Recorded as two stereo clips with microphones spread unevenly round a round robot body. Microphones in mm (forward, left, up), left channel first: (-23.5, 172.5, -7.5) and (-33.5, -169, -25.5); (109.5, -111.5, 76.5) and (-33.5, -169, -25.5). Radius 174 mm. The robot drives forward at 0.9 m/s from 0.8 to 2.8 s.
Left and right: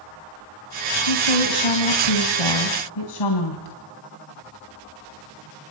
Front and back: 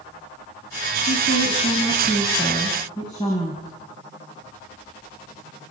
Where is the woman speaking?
75° left, 3 m; by 3.8 s 105° left, 3 m.